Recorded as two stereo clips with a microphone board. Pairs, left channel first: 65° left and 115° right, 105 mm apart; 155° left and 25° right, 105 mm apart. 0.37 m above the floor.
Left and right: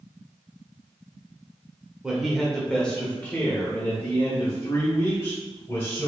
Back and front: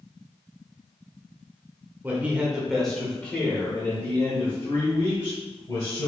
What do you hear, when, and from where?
2.0 s a man speaking: 40° right, 1.1 m; by 6.1 s 120° left, 2.5 m